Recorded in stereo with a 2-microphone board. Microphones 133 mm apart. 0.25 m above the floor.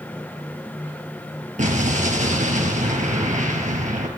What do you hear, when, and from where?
1.6 s an explosion: 65° right (ahead or behind), 3 m